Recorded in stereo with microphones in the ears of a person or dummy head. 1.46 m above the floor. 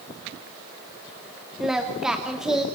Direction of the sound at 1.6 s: 5° right (ahead or behind).